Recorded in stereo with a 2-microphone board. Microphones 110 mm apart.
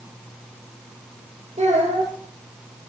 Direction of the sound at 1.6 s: 65° right (ahead or behind).